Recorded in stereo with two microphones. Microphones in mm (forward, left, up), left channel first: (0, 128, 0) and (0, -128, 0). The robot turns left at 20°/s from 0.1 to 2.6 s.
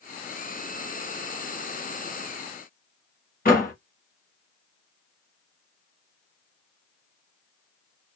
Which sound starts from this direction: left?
A door slam, at 3.5 s.